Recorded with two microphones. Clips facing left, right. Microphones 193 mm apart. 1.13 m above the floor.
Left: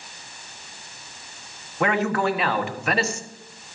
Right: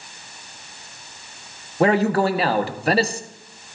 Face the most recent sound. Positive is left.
turn(degrees=-35)  # may be behind; listen again after turning